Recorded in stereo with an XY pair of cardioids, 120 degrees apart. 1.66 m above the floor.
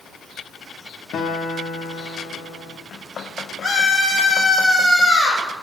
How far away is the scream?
About 3 m.